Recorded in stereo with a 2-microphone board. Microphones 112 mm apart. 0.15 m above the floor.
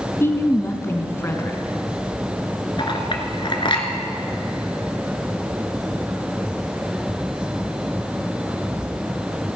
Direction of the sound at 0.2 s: 25° left (ahead or behind).